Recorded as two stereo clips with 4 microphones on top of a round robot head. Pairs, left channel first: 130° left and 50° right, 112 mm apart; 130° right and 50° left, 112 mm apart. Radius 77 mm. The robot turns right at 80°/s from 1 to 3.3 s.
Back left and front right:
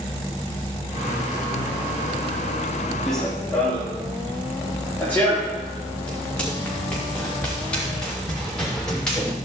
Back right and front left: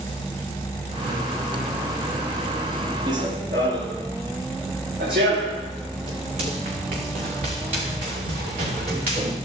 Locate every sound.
3.1 s running footsteps: 35° left, 3.5 m; by 9.4 s 45° left, 7 m